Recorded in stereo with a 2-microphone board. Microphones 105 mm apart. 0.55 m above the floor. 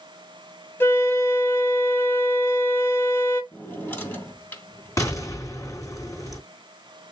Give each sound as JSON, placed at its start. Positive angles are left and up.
{"t": 0.8, "sound": "a flute", "side_deg": 20, "distance_m": 1.8}
{"t": 3.5, "sound": "a drawer", "side_deg": 20, "distance_m": 3.5}
{"t": 5.0, "sound": "an explosion", "side_deg": 30, "distance_m": 3.5}